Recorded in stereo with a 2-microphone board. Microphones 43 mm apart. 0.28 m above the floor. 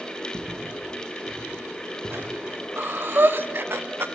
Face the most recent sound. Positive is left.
turn(degrees=-55)  # may be behind; listen again after turning